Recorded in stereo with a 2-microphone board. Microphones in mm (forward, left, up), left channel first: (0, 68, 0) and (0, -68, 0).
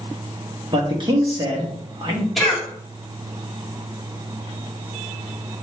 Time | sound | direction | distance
0.7 | a man speaking | 35° right (ahead or behind) | 1.2 m
2.4 | a cough | centre (ahead or behind) | 1.7 m